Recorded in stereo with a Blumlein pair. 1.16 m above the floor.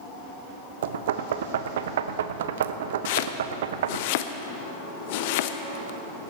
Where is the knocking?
60° right, 0.6 m.